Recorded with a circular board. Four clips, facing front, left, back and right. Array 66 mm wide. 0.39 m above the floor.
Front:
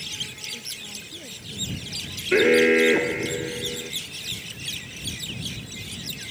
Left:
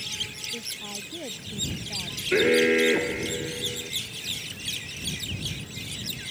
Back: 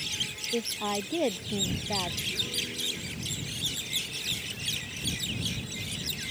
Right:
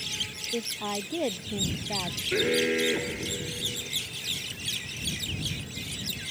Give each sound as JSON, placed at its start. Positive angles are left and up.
{"t": 0.5, "sound": "a woman speaking", "azimuth_deg": -145}
{"t": 2.3, "sound": "an alarm", "azimuth_deg": 20}